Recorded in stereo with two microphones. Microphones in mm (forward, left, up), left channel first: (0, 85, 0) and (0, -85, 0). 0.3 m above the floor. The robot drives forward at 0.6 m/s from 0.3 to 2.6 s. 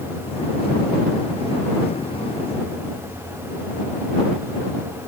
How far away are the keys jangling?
I don't hear keys jangling.